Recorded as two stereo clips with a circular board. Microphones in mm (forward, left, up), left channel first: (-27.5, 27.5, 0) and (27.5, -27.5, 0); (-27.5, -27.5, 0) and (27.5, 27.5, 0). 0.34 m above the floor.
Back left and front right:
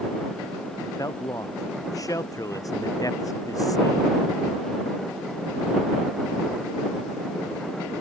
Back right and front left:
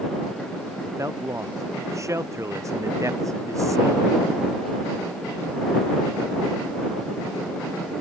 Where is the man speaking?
95° left.